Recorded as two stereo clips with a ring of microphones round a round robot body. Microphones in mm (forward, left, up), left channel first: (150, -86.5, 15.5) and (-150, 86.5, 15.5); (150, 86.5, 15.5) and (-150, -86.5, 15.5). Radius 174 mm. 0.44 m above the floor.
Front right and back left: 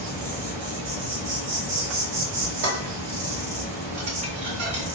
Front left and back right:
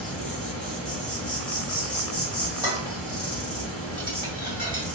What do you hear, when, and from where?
0.0 s an insect: 115° left, 1.6 m
2.6 s dishes clattering: 135° left, 1.6 m